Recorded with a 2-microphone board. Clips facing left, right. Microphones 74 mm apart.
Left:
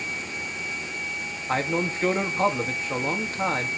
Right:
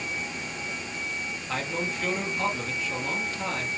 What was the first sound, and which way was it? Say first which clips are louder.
A man speaking: left 6 dB; 35° left (ahead or behind).